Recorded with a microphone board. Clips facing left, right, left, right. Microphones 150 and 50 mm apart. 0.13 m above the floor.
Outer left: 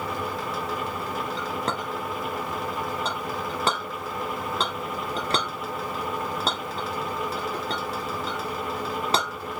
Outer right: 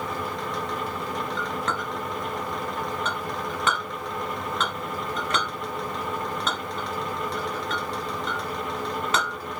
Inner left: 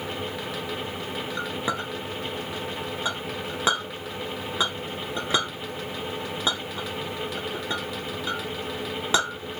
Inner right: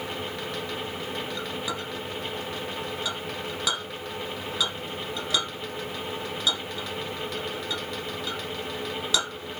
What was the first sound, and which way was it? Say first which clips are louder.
A clink: even, inner left 3 dB; 35° left (ahead or behind).